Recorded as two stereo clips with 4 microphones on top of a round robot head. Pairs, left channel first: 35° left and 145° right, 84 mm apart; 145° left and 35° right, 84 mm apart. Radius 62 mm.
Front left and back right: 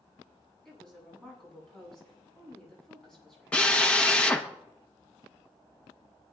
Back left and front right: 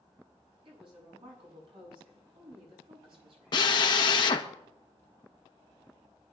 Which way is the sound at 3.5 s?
110° left.